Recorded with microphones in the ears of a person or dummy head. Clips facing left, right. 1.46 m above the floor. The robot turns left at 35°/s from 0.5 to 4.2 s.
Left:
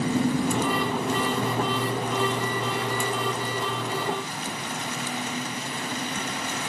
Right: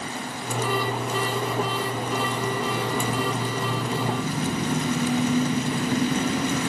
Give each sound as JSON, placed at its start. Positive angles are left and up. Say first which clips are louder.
{"t": 0.0, "sound": "an engine running", "louder": "left 10 dB", "azimuth_deg": 60}